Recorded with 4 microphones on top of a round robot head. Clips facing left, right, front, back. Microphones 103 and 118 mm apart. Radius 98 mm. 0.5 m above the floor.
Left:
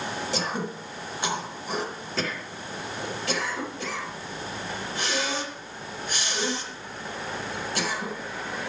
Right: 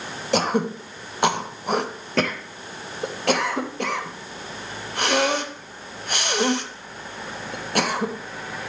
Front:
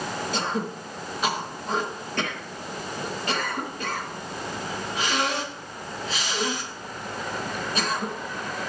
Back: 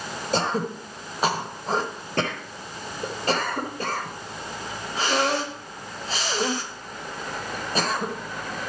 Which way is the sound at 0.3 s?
120° right.